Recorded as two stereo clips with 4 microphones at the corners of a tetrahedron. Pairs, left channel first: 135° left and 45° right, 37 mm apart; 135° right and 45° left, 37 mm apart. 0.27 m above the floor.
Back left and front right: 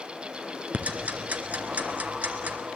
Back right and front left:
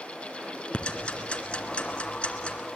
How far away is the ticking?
About 2.5 m.